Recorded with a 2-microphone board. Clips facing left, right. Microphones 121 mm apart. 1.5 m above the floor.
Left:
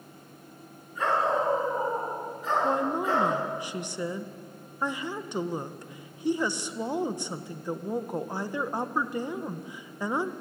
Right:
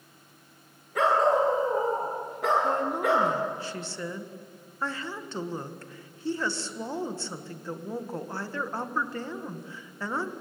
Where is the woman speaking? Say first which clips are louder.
Right 1 dB; 15° left (ahead or behind), 1.5 m.